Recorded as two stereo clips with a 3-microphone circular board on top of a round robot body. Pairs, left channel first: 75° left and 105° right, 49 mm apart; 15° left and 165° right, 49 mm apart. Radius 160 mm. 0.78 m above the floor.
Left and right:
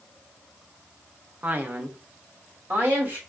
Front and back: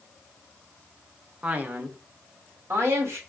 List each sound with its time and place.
1.4 s a man speaking: 120° right, 0.8 m; by 3.2 s 140° right, 2 m